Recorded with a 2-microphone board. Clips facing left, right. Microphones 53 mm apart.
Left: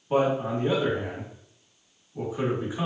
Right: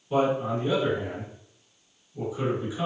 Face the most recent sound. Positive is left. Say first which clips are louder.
# even
turn(degrees=35)  # may be behind; listen again after turning